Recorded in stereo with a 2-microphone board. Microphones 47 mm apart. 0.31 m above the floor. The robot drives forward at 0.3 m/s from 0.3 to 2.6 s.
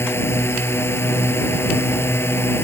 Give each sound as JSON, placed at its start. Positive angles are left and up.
{"t": 0.0, "sound": "a drone", "side_deg": 65}